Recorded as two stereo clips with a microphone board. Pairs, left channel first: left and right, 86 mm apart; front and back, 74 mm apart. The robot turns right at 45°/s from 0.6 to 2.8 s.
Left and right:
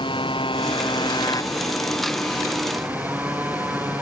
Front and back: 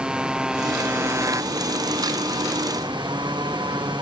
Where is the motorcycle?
100° left; by 4.0 s 160° right.